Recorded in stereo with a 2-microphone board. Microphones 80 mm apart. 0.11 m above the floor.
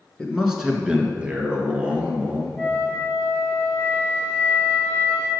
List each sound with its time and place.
0.2 s a man speaking: 5° left (ahead or behind), 1.2 m; by 2.5 s 20° right (ahead or behind), 3 m
2.6 s a flute: 15° left (ahead or behind), 1.8 m